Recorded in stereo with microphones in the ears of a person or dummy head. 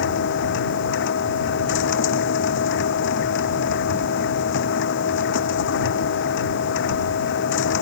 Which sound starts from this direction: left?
A machine running, at 0.0 s.